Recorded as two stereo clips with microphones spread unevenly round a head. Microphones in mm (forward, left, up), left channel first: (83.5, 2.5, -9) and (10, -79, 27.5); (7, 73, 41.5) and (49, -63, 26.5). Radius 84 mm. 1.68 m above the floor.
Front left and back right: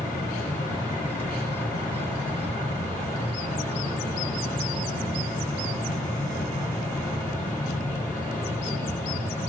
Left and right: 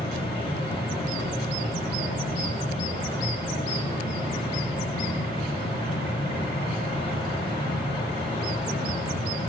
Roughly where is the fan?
Ahead left.